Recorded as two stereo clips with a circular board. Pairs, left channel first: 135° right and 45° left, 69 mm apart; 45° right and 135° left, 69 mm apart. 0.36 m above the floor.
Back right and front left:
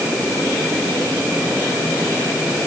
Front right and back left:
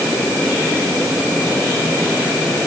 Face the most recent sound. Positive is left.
No sound to turn to.